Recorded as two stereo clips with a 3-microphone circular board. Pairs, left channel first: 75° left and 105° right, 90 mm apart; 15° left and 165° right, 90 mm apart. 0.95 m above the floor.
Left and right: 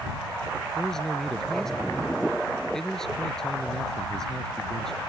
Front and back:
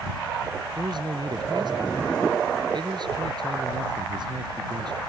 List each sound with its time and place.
0.8 s a man speaking: 160° left